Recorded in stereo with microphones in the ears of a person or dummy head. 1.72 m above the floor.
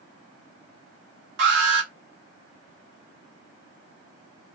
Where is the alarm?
55° right (ahead or behind), 1.2 m.